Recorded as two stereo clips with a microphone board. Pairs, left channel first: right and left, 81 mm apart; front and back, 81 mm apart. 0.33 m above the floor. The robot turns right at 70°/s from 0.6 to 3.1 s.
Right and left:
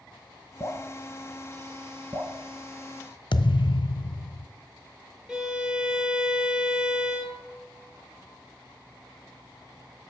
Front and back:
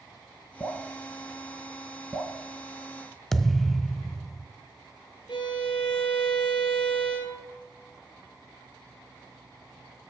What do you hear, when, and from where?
0.6 s dripping: 55° right, 1.5 m; by 2.3 s 70° left, 1.5 m
3.3 s a thud: 85° right, 0.6 m
5.3 s a violin: 10° left, 1.6 m